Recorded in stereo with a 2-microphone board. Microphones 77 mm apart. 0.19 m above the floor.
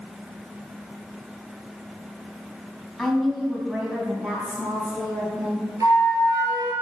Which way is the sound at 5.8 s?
45° right (ahead or behind).